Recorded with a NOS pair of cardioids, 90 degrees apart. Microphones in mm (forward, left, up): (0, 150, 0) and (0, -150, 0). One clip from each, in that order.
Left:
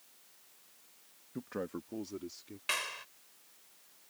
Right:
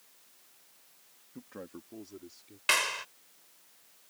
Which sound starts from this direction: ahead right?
A clap, at 2.7 s.